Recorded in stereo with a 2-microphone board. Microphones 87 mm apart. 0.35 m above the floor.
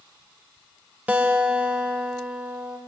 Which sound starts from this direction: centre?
A guitar, at 1.1 s.